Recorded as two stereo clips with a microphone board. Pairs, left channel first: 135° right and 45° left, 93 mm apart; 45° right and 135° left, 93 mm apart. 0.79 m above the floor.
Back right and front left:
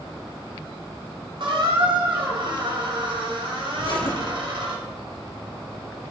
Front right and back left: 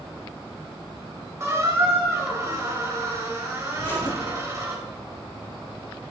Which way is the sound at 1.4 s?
75° left.